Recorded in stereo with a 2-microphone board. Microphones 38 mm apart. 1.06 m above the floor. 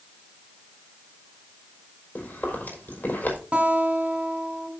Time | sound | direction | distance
2.1 | chewing | 55° left (ahead or behind) | 4.5 m
3.5 | a guitar | 30° right (ahead or behind) | 3 m